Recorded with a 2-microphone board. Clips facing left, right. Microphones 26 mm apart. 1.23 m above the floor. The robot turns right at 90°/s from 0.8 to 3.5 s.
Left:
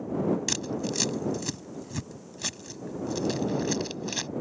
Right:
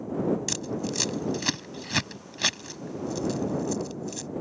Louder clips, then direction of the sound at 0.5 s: Even; 10° left (ahead or behind).